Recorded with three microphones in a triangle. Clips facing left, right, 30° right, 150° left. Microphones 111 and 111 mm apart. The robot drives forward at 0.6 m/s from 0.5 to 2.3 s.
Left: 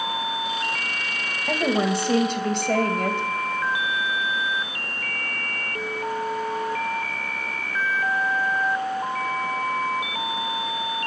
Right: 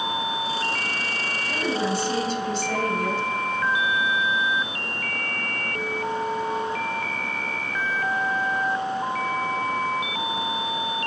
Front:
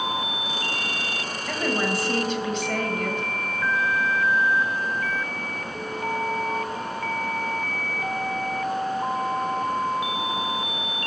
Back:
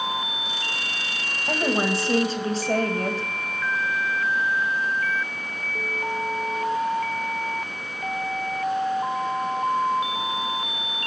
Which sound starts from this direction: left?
A woman speaking, at 1.5 s.